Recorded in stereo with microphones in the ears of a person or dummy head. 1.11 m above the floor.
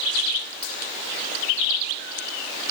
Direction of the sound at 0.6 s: 55° left (ahead or behind).